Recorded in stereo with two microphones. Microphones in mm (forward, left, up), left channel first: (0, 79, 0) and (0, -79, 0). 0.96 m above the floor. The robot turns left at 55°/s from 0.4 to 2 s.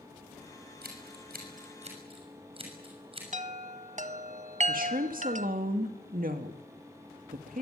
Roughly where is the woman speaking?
Right.